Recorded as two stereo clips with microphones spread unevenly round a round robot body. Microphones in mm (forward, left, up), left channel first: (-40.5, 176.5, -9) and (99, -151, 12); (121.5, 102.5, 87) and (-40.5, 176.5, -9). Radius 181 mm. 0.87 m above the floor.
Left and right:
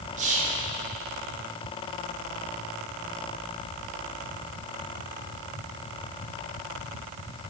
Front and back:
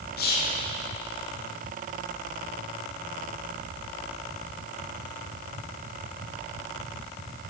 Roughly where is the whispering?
Ahead right.